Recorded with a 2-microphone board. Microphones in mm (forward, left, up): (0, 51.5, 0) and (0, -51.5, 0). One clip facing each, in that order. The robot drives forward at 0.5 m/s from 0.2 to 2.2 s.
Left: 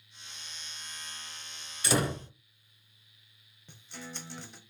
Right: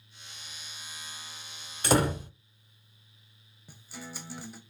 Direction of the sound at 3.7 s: 5° right (ahead or behind).